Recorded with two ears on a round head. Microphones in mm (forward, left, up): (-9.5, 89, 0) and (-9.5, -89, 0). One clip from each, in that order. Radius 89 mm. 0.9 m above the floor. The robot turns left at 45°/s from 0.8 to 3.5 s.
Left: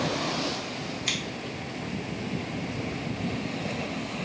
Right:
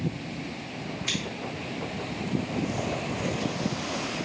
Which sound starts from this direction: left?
Scissors, at 1.1 s.